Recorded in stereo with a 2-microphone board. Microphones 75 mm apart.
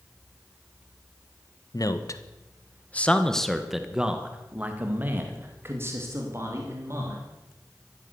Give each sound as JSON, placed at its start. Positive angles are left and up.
{"t": 1.7, "sound": "a man speaking", "side_deg": 55, "distance_m": 1.4}